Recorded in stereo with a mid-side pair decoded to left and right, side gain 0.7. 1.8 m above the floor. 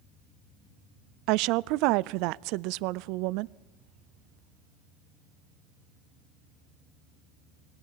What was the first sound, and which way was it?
A woman speaking, 65° right.